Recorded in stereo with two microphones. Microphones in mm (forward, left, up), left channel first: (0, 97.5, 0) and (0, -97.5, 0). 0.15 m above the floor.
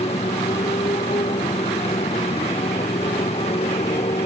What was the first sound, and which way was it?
A motorcycle, 30° left (ahead or behind).